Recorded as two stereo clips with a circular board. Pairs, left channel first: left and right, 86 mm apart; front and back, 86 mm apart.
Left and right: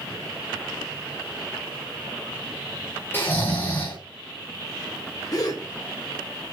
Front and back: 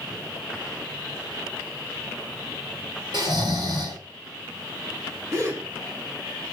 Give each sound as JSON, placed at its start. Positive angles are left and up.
{"t": 3.1, "sound": "snoring", "azimuth_deg": 155, "distance_m": 3.0}
{"t": 5.3, "sound": "a gasp", "azimuth_deg": 130, "distance_m": 2.5}